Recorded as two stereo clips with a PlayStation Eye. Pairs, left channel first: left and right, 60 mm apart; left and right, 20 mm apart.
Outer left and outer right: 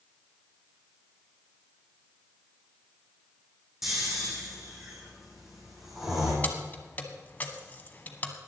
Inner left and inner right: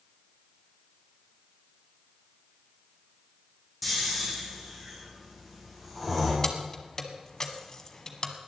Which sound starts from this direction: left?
Keys jangling, at 6.4 s.